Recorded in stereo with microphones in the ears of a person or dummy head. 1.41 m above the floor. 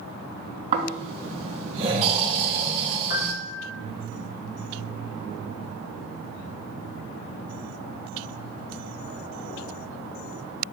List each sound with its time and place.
0.7 s snoring: 30° right (ahead or behind), 3 m
3.1 s a piano: 50° left (ahead or behind), 1.5 m